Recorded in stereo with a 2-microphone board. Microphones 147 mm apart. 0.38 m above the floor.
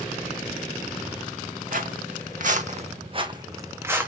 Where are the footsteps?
70° right (ahead or behind), 1.0 m; by 4.1 s 10° right (ahead or behind), 1.0 m.